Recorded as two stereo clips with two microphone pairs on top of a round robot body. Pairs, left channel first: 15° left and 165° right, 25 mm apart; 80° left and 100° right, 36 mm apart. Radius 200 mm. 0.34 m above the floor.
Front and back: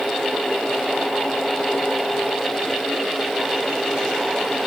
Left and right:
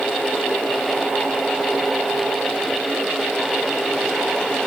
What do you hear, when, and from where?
Only background noise.